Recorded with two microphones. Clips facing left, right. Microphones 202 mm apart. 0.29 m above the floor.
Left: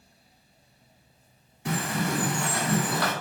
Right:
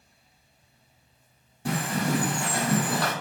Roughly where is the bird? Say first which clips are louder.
Right 1 dB; right.